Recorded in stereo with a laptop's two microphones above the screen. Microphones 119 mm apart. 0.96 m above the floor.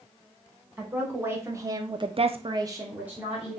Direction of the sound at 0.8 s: 20° right (ahead or behind).